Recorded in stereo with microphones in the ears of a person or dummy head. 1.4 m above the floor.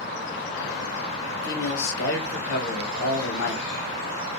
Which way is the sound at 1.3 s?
65° left (ahead or behind).